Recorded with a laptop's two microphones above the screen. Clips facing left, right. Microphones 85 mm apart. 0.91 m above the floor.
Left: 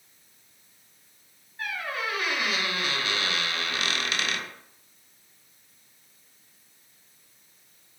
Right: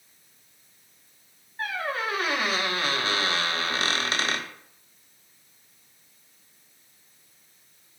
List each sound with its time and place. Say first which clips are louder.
1.6 s a squeak: right 3 dB; 35° right (ahead or behind), 0.6 m